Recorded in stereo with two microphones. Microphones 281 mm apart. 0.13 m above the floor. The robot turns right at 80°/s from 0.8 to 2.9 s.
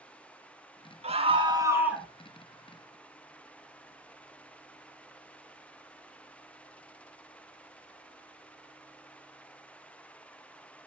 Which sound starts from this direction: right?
A scream, at 1.0 s.